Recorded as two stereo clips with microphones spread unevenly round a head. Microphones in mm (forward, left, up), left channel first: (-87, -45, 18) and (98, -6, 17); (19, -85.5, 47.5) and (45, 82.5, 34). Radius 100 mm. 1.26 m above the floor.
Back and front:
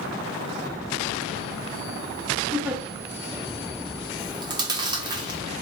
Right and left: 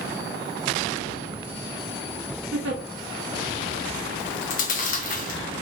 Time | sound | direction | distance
2.5 | a giggle | 90° left | 0.9 m
4.2 | chewing | 55° right | 0.8 m